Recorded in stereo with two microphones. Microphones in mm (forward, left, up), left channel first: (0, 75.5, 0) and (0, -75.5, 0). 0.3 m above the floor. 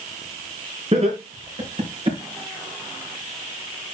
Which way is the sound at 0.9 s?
45° right (ahead or behind).